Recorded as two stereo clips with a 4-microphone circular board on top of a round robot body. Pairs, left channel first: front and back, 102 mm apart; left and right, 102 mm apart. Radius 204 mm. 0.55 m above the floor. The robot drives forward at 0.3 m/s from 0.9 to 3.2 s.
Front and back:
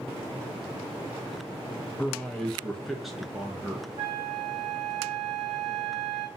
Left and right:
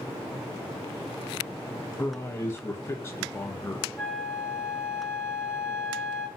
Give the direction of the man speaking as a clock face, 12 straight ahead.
10 o'clock.